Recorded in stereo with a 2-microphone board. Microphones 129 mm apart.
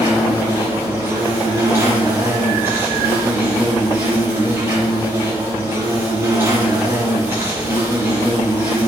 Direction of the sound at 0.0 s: 20° right (ahead or behind).